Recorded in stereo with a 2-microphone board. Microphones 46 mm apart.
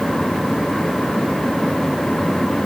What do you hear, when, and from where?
Only background noise.